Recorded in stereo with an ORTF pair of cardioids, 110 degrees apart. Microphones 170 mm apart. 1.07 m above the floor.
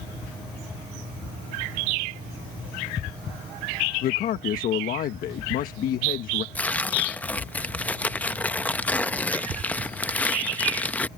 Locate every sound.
4.0 s a man speaking: 60° left
6.5 s tearing paper: 10° left